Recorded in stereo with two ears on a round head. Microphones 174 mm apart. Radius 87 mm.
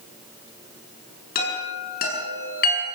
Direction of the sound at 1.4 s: 50° left (ahead or behind).